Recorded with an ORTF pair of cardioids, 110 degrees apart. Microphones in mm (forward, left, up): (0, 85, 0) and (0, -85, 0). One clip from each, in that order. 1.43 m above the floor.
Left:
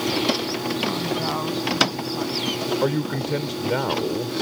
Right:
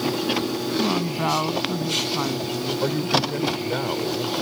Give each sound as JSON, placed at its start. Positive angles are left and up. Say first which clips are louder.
{"t": 0.8, "sound": "a woman speaking", "louder": "right 3 dB", "azimuth_deg": -45}
{"t": 2.8, "sound": "a man speaking", "louder": "right 2 dB", "azimuth_deg": 30}